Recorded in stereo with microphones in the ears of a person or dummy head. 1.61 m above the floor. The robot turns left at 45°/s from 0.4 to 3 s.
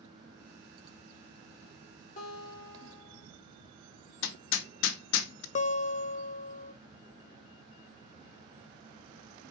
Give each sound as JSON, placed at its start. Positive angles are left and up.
{"t": 2.2, "sound": "a guitar", "azimuth_deg": 50, "distance_m": 5.5}
{"t": 4.2, "sound": "hammering", "side_deg": 75, "distance_m": 0.9}
{"t": 5.5, "sound": "a guitar", "side_deg": 35, "distance_m": 0.6}